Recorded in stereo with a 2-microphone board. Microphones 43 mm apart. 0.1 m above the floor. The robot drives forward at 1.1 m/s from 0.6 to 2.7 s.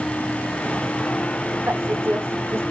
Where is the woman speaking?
65° right (ahead or behind), 7 m; by 2.6 s 70° right (ahead or behind), 6.5 m.